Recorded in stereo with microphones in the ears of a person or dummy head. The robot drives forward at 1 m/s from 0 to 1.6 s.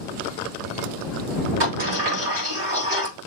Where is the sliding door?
50° right (ahead or behind), 1.4 m.